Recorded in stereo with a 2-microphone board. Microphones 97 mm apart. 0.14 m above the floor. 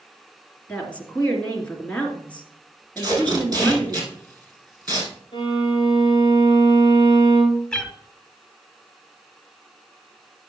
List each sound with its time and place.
0.7 s a woman speaking: 15° left (ahead or behind), 2.5 m
3.0 s tape being pulled: 35° right (ahead or behind), 4 m
5.3 s a violin: 55° left (ahead or behind), 3 m
7.7 s a cat meowing: 5° left (ahead or behind), 0.8 m